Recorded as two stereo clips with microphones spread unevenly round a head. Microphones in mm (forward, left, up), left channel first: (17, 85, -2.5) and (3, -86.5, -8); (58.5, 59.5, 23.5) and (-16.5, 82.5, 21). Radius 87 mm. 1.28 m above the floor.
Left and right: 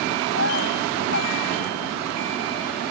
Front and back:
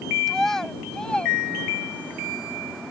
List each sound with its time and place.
0.3 s a child speaking: 70° left; by 2.2 s 50° left